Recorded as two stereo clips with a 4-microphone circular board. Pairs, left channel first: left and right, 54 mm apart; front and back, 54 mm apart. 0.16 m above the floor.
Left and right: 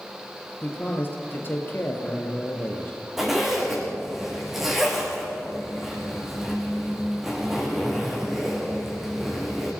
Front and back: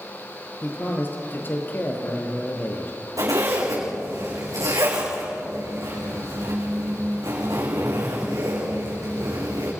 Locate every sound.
0.6 s a man speaking: 45° left, 3.5 m
3.2 s a zipper: 175° right, 6 m